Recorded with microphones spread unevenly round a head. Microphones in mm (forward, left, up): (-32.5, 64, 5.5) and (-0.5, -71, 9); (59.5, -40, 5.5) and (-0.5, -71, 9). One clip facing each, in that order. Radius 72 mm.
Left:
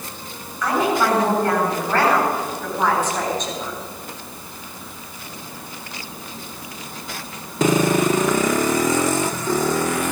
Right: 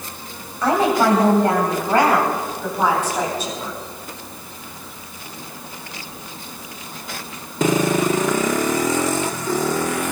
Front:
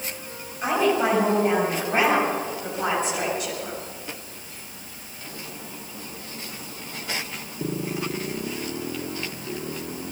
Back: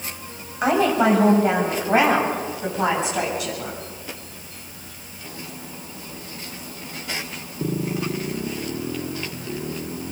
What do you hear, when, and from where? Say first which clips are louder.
0.6 s a woman speaking: right 3 dB, back 3 dB; 140° right, 7.5 m; by 3.8 s 160° right, 10 m